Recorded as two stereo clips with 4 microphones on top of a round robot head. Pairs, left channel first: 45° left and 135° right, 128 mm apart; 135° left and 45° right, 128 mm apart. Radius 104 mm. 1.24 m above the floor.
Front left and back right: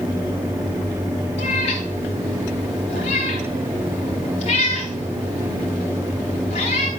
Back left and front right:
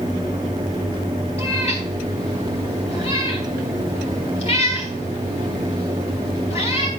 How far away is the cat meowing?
About 2.5 m.